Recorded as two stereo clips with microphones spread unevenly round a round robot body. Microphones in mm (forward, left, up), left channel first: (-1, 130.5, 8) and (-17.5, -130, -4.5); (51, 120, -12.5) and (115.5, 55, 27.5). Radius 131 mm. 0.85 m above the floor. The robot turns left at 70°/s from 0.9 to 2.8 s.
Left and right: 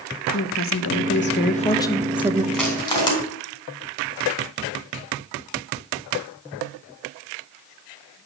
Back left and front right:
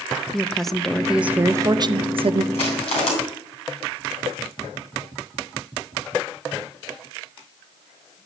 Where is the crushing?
175° left, 3.5 m; by 3.1 s 160° left, 3.5 m.